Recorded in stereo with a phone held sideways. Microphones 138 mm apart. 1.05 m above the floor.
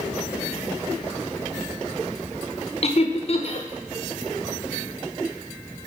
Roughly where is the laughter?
Left.